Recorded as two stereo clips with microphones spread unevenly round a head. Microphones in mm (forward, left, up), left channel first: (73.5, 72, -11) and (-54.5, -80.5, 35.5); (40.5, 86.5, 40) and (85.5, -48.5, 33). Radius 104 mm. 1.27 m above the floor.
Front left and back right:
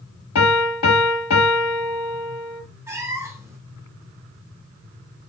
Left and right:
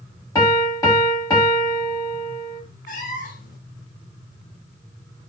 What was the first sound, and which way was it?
A piano, 45° left.